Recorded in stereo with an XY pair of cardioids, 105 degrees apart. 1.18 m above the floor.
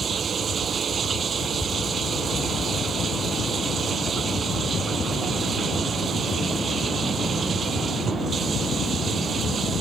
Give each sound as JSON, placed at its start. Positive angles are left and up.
{"t": 0.0, "sound": "running water", "azimuth_deg": -45}